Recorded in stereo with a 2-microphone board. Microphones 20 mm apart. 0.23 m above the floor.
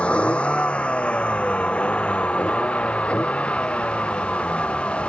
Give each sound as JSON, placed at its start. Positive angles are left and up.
{"t": 0.0, "sound": "a vehicle", "side_deg": 85}